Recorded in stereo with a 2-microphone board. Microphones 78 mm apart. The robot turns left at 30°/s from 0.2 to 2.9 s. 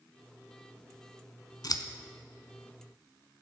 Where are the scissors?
55° left (ahead or behind), 0.8 m.